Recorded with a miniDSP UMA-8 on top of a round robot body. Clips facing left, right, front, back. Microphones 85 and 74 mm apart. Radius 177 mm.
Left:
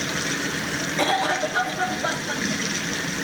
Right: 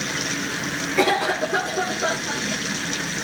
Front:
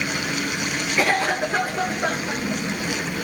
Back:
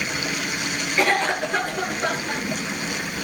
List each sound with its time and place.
1.0 s a cough: 85° right, 9.5 m